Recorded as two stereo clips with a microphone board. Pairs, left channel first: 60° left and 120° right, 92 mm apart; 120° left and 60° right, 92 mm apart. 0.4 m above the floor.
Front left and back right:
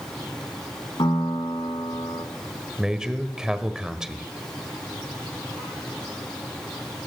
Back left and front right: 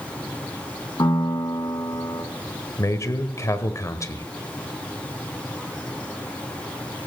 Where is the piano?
80° left, 3 m.